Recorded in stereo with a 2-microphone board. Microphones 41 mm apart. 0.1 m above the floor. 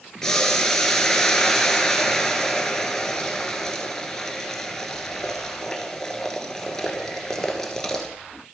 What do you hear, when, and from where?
0.2 s boiling: 15° left (ahead or behind), 1.3 m